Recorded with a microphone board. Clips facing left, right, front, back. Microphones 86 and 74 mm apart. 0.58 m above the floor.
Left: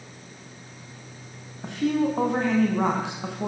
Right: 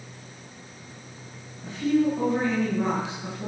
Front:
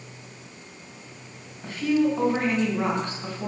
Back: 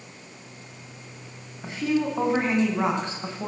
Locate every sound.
1.6 s a woman speaking: 110° left, 4 m